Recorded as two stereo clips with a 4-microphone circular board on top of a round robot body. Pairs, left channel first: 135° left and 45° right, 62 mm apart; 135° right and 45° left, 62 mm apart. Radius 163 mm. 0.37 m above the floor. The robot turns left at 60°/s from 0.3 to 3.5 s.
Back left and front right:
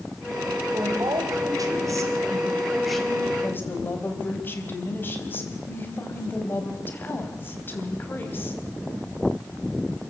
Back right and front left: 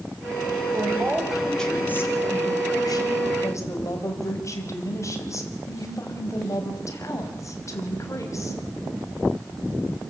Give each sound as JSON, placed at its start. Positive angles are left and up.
{"t": 0.7, "sound": "a woman speaking", "azimuth_deg": 0, "distance_m": 4.0}